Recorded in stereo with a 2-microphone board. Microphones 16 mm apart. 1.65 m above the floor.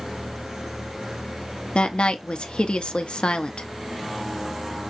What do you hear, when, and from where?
1.8 s a woman speaking: 80° left, 0.7 m